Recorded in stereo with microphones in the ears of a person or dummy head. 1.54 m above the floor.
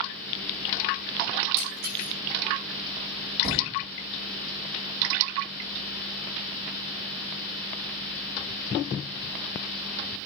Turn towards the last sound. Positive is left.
turn(degrees=-30)  # may be behind; listen again after turning